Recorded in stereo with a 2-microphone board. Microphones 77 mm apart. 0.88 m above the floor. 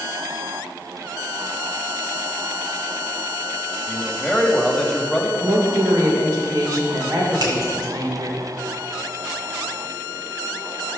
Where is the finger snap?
55° right (ahead or behind), 2.0 m.